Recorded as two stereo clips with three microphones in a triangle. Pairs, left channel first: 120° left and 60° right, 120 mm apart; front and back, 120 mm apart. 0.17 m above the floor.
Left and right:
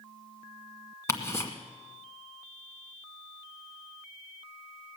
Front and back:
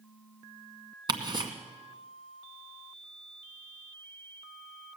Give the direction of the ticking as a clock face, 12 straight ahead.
6 o'clock.